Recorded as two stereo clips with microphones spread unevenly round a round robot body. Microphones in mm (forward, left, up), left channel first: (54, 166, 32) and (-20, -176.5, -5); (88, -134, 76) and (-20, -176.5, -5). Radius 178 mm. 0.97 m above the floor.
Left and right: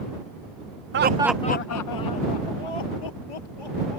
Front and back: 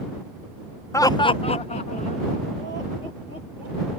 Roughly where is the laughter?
Right.